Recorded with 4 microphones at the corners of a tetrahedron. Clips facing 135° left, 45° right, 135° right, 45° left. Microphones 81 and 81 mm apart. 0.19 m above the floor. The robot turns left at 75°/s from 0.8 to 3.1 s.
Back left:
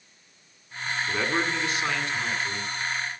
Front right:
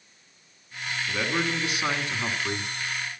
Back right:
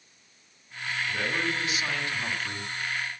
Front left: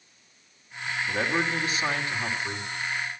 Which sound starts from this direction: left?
A man speaking, at 1.1 s.